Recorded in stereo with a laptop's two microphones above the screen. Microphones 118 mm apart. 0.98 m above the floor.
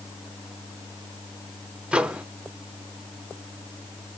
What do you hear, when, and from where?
1.9 s a microwave: 10° right (ahead or behind), 0.5 m